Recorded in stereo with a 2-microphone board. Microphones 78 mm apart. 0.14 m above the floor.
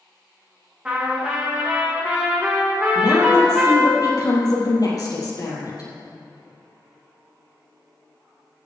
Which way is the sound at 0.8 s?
15° right (ahead or behind).